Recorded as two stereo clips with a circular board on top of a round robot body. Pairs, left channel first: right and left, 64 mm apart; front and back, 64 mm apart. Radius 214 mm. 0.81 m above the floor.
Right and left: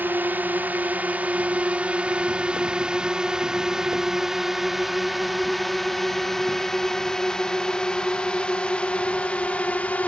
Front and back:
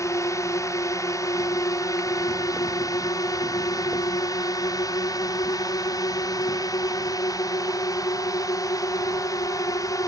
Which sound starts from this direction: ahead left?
A drone, at 0.0 s.